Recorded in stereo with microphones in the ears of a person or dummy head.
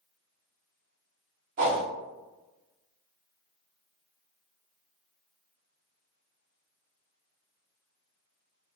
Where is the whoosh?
35° right (ahead or behind), 1.0 m.